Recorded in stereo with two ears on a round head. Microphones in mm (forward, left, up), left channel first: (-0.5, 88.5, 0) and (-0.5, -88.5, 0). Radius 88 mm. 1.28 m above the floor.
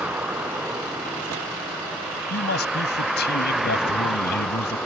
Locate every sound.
0.0 s a vehicle: 5° right (ahead or behind); by 4.9 s centre (ahead or behind)
2.3 s a man speaking: 55° left (ahead or behind)